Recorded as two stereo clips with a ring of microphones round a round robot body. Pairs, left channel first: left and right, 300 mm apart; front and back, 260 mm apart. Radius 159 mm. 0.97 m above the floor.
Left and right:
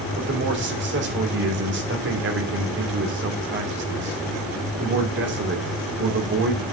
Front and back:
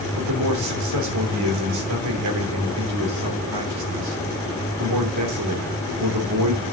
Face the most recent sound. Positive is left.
turn(degrees=-145)